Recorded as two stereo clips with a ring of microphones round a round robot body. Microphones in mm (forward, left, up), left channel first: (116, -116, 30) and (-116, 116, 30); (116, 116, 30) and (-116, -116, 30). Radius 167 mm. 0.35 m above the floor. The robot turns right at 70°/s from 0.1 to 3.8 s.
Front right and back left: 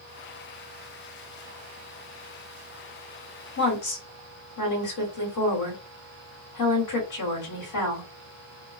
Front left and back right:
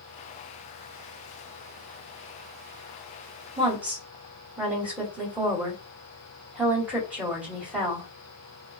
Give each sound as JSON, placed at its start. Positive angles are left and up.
{"t": 3.6, "sound": "a woman speaking", "azimuth_deg": -65, "distance_m": 1.8}